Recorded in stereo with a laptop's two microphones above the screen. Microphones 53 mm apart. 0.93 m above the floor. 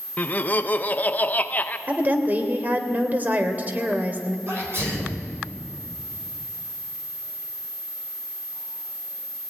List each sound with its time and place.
0.2 s laughter: 30° left (ahead or behind), 0.9 m
1.9 s a woman speaking: 35° right (ahead or behind), 3 m
4.5 s a sneeze: 45° right (ahead or behind), 4 m